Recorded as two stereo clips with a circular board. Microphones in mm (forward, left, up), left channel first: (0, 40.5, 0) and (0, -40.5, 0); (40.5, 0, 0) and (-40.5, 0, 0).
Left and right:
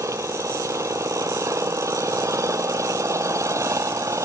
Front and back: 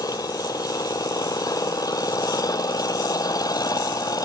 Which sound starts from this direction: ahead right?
An engine running, at 0.0 s.